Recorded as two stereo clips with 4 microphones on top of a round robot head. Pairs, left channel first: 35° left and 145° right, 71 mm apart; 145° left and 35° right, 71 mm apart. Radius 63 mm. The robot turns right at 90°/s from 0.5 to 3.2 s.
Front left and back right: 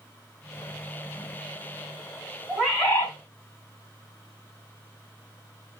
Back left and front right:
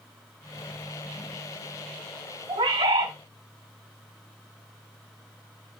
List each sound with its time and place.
2.5 s a bird: 75° right, 3.5 m; by 3.1 s 20° right, 3.5 m